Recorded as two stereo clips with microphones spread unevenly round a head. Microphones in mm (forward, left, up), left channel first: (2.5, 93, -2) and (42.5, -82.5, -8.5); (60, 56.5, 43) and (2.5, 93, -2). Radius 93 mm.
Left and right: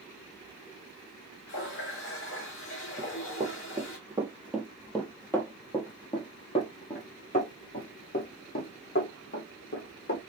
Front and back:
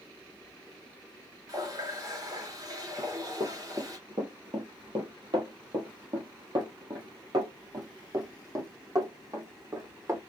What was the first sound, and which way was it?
A running tap, 105° left.